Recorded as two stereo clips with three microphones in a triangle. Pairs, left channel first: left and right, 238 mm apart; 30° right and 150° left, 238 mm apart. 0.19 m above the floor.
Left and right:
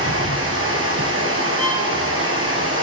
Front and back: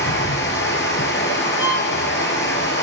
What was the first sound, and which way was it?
Running water, 70° right.